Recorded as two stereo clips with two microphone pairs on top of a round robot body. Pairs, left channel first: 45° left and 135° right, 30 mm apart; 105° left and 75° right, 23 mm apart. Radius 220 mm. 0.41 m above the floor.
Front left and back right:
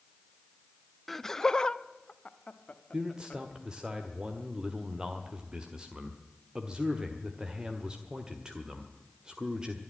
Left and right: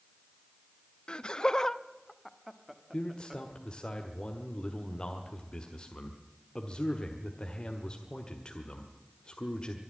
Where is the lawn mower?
No lawn mower in this recording.